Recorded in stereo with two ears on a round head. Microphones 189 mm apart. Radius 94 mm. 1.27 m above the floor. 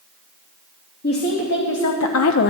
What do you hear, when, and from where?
1.0 s a woman speaking: 50° left (ahead or behind), 1.7 m; by 2.5 s 45° left (ahead or behind), 0.5 m